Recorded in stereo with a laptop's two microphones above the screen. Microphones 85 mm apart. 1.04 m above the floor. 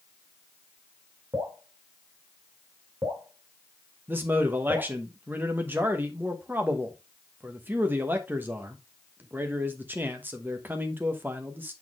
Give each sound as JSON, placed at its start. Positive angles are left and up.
{"t": 1.3, "sound": "dripping", "side_deg": -45, "distance_m": 1.9}
{"t": 4.1, "sound": "a man speaking", "side_deg": -25, "distance_m": 0.9}